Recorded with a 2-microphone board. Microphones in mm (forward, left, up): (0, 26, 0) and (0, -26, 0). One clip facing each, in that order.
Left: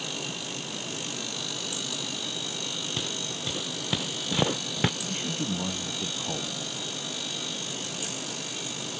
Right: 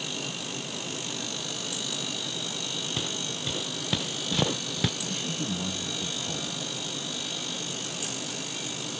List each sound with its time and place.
3.0 s footsteps: centre (ahead or behind); by 4.9 s 35° left (ahead or behind)
5.0 s a man speaking: 25° left (ahead or behind)